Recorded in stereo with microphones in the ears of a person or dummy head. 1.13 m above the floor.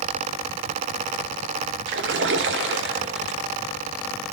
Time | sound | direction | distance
1.9 | a splash | 50° right (ahead or behind) | 0.6 m